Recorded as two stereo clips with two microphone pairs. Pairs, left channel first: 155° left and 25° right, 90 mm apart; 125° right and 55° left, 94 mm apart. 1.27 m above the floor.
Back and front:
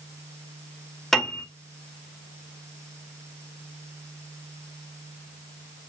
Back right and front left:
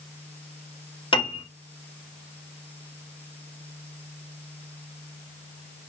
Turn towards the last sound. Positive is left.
turn(degrees=-120)